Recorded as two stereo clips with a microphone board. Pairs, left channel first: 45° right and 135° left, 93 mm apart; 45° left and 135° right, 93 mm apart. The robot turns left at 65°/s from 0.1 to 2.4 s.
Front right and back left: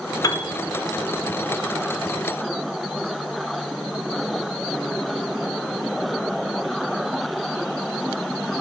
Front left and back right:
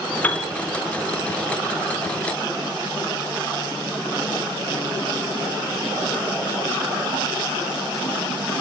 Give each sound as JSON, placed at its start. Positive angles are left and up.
{"t": 0.2, "sound": "a piano", "azimuth_deg": -20, "distance_m": 0.6}